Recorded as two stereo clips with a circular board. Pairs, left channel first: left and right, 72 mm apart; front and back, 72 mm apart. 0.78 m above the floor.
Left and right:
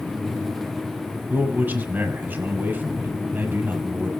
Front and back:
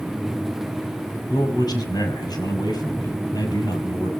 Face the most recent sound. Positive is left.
turn(degrees=-25)